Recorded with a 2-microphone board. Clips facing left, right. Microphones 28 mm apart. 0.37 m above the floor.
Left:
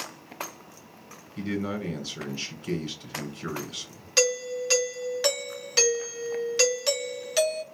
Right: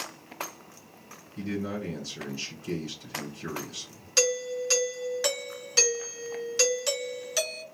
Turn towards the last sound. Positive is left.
turn(degrees=15)  # may be behind; listen again after turning